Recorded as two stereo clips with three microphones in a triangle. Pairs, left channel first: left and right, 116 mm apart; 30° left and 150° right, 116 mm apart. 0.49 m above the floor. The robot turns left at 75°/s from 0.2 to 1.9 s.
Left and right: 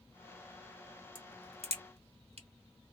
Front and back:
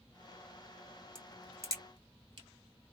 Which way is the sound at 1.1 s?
50° right.